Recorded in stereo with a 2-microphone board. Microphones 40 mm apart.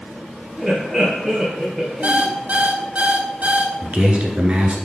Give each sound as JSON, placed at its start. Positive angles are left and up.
{"t": 0.6, "sound": "laughter", "side_deg": 0, "distance_m": 2.5}
{"t": 2.0, "sound": "an alarm clock", "side_deg": -40, "distance_m": 0.7}
{"t": 3.8, "sound": "a man speaking", "side_deg": -30, "distance_m": 1.7}